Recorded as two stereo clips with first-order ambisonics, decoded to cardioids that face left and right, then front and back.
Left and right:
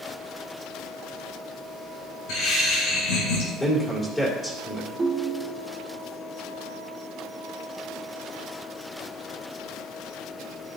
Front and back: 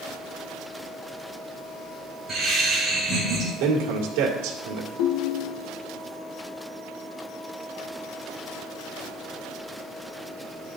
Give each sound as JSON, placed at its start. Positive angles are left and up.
{"t": 2.3, "sound": "laughter", "azimuth_deg": 95, "distance_m": 5.0}
{"t": 3.6, "sound": "a man speaking", "azimuth_deg": 170, "distance_m": 2.0}
{"t": 5.0, "sound": "a ringtone", "azimuth_deg": -10, "distance_m": 1.0}